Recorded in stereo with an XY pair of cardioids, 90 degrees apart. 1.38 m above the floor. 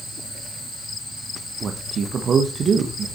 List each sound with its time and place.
1.6 s a man speaking: 60° right, 1.4 m